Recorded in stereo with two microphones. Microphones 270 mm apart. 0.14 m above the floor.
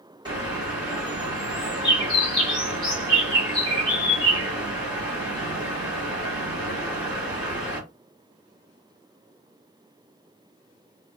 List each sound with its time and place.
0.2 s a bird: 20° right (ahead or behind), 1.9 m